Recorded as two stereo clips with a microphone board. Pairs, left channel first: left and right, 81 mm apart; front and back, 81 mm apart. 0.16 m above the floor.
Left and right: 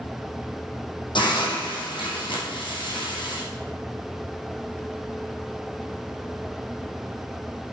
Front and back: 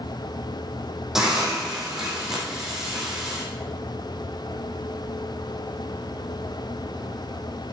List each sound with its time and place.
1.1 s a hiss: 95° left, 5 m